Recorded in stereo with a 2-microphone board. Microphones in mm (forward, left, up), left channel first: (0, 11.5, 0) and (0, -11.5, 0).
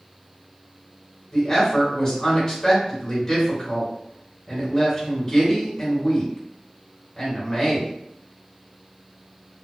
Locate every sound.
1.3 s a woman speaking: 25° left (ahead or behind), 1.4 m